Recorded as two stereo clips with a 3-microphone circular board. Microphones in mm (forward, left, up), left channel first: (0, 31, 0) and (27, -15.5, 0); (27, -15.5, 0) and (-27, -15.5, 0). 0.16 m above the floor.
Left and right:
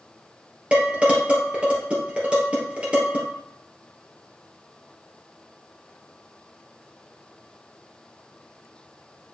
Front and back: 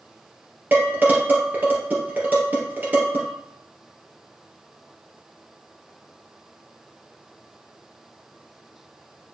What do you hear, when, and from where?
0.7 s dishes clattering: 125° right, 2.5 m